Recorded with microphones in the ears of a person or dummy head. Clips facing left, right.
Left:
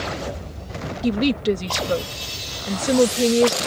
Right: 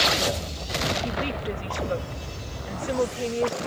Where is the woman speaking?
55° left (ahead or behind).